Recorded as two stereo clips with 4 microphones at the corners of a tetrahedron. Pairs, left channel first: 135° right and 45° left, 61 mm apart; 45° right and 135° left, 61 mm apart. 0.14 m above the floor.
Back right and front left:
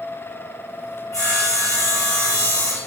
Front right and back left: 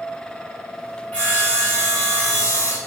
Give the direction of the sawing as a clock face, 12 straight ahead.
4 o'clock.